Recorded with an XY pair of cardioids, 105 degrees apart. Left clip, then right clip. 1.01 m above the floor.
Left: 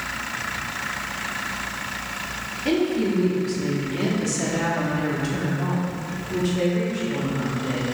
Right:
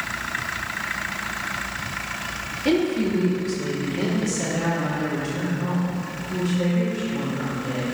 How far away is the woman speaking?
About 2.5 m.